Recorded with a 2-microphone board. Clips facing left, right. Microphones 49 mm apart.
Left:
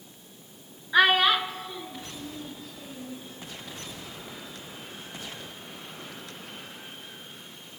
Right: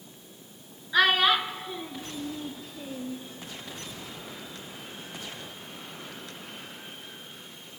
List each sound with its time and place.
0.9 s a child speaking: 20° left (ahead or behind), 0.6 m; by 3.2 s 50° right (ahead or behind), 1.4 m